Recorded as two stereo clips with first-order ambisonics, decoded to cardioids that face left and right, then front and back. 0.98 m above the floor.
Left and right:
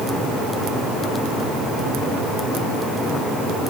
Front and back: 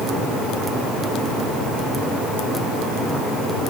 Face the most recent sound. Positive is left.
No sound to turn to.